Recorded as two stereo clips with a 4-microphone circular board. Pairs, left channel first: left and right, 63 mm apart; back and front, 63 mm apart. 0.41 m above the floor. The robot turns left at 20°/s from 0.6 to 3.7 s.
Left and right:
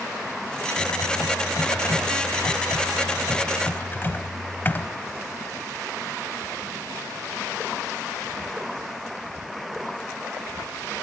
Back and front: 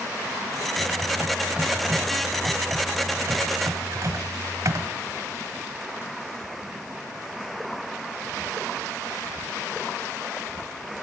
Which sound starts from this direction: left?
Typing on a keyboard, at 0.8 s.